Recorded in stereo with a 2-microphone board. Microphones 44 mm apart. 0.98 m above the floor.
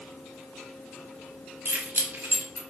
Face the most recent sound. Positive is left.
turn(degrees=-50)  # may be behind; listen again after turning